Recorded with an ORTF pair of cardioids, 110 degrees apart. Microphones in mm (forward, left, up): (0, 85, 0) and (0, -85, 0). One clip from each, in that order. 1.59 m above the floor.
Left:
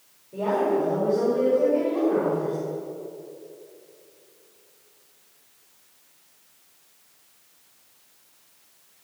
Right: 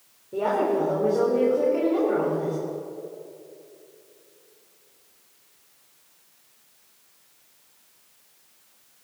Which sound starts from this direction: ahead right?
A woman speaking, at 0.3 s.